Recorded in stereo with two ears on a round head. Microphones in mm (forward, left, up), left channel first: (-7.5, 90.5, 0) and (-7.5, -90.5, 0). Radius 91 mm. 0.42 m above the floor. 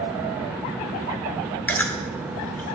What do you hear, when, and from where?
1.7 s chewing: 10° left (ahead or behind), 1.1 m